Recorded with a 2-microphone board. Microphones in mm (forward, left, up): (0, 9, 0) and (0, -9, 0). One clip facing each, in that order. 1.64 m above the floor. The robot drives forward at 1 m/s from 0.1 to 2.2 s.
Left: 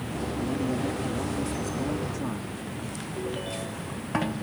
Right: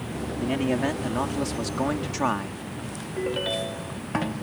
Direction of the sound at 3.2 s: 50° right (ahead or behind).